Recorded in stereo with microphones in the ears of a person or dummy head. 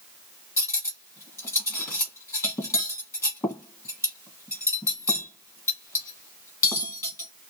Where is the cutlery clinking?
15° left (ahead or behind), 1.3 m.